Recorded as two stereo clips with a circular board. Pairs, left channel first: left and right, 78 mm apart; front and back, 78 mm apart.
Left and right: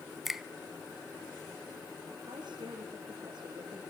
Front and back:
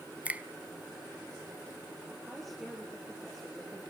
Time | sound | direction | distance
0.2 | a finger snap | 170° right | 0.8 m
2.3 | a woman speaking | 95° right | 4 m